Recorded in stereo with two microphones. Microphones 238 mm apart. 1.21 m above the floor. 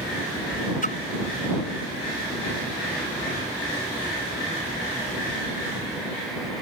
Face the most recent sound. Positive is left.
turn(degrees=35)  # may be behind; listen again after turning